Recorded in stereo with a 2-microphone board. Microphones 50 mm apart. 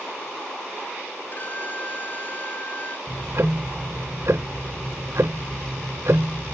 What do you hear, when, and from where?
1.3 s a violin: 40° left (ahead or behind)
3.1 s ticking: 70° right (ahead or behind)